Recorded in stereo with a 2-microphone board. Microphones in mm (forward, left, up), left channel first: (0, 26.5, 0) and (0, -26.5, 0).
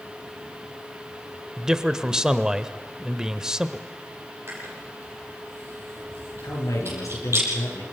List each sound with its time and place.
1.6 s a man speaking: 10° right (ahead or behind), 1.0 m
4.5 s chewing: 45° right (ahead or behind), 9.5 m
6.4 s a man speaking: 80° left, 7 m